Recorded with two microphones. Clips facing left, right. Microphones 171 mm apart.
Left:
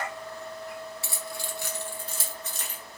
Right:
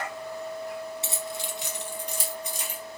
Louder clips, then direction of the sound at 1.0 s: Right 3 dB; 25° right (ahead or behind).